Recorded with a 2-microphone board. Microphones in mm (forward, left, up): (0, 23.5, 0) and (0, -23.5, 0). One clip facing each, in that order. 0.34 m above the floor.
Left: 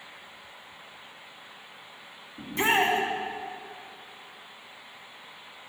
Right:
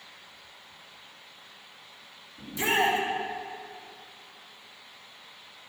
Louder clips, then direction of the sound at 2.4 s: Left 2 dB; 60° left (ahead or behind).